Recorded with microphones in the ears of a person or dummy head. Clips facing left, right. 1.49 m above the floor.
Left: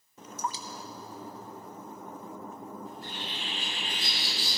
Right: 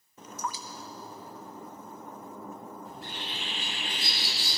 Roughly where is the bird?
Right.